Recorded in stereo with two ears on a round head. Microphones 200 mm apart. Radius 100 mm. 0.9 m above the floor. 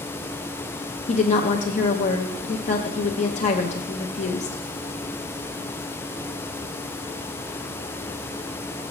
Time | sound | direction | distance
1.1 | a woman speaking | 35° left (ahead or behind) | 0.6 m